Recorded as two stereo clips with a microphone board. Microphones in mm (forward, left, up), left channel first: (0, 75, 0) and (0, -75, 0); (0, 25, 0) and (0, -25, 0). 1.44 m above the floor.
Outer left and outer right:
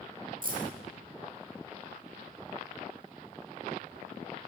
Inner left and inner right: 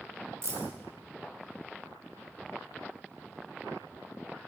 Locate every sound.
0.4 s keys jangling: 70° right (ahead or behind), 1.7 m